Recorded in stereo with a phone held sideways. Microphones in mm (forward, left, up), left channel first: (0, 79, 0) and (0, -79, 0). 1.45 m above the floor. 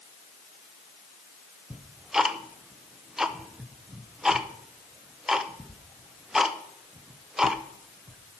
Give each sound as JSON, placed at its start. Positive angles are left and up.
{"t": 1.7, "sound": "ticking", "side_deg": -5, "distance_m": 0.6}